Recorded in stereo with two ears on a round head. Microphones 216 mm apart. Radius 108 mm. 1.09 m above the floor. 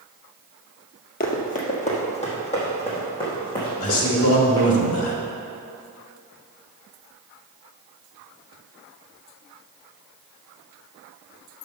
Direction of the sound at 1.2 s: 40° left (ahead or behind).